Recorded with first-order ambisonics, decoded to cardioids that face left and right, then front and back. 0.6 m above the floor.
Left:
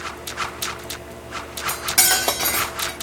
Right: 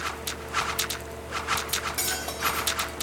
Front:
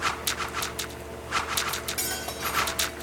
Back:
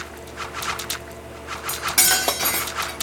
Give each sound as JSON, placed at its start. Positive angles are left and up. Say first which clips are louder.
{"t": 1.7, "sound": "cutlery clinking", "louder": "left 9 dB, back 10 dB", "azimuth_deg": 135, "distance_m": 0.6}